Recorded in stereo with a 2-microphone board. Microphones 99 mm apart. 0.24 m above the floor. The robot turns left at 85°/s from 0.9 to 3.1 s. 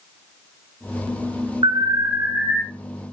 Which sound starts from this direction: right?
An alarm, at 1.6 s.